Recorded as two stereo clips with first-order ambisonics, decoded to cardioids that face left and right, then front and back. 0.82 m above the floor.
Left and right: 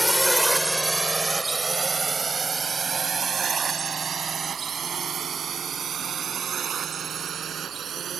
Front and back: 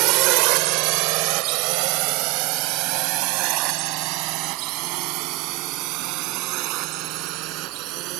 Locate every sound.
0.0 s a drone: straight behind; by 8.2 s 150° right